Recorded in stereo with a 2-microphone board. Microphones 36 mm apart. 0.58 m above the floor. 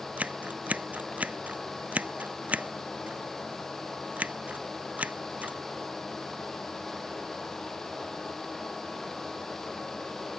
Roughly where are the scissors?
Right.